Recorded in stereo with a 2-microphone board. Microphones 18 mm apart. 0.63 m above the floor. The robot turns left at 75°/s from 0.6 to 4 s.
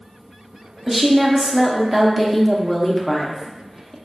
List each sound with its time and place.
0.9 s a woman speaking: 15° right (ahead or behind), 0.5 m; by 4.0 s 20° left (ahead or behind), 0.5 m